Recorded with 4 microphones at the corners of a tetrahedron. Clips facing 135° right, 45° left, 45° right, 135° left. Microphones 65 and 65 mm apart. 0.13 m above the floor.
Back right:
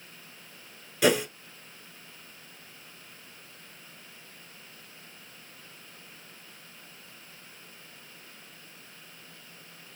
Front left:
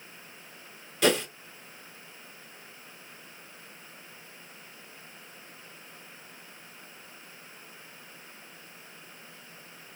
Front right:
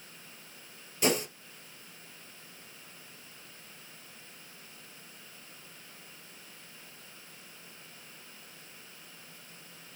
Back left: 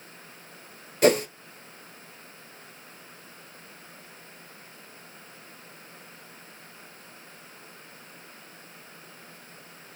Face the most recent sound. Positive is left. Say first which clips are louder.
# back right 1 dB, back left 9 dB
turn(degrees=145)